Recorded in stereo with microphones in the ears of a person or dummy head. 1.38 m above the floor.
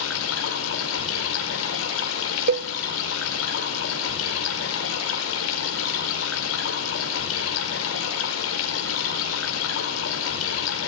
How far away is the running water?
About 5 m.